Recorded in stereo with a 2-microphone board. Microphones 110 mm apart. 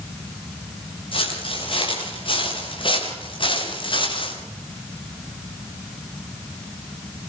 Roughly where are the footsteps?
Left.